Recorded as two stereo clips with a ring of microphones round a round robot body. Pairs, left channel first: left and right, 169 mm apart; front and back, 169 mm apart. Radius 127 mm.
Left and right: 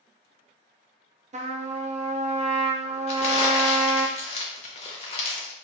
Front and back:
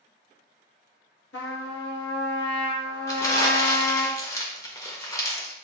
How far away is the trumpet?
About 0.6 m.